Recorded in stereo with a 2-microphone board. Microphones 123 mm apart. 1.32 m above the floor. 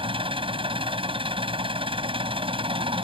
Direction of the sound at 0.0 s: 45° right (ahead or behind).